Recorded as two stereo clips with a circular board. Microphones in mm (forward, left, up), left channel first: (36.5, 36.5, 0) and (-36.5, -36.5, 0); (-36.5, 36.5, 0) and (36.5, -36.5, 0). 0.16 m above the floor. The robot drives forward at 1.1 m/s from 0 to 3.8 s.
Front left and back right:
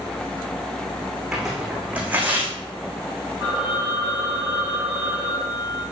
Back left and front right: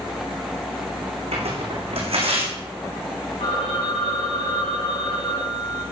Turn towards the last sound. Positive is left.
turn(degrees=150)